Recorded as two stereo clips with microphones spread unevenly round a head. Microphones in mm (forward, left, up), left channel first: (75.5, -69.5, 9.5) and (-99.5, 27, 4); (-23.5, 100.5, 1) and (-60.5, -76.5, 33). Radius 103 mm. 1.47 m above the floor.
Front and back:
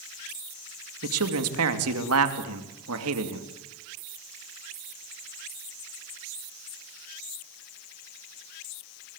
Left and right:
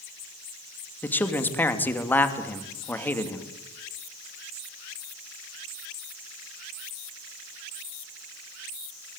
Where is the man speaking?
160° left, 2.5 m.